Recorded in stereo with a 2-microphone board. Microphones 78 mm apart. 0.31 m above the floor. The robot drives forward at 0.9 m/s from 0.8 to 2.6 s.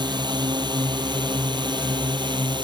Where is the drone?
70° right (ahead or behind); by 2.6 s 75° right (ahead or behind).